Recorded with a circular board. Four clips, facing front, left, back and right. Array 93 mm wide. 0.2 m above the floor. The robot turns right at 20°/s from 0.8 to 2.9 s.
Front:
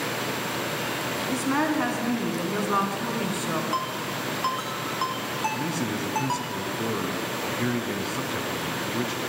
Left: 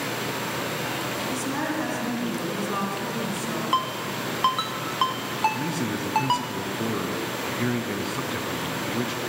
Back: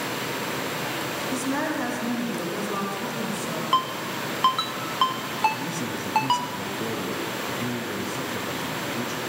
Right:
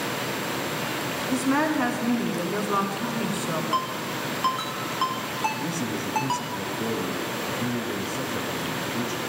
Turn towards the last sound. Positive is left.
turn(degrees=55)